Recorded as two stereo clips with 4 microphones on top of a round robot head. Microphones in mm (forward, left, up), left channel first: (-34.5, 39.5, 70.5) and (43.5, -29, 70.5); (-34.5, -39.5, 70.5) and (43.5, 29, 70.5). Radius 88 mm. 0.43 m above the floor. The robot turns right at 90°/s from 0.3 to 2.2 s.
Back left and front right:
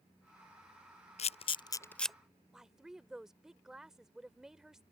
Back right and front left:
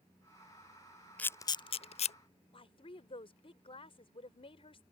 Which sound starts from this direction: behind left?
A camera shutter, at 1.2 s.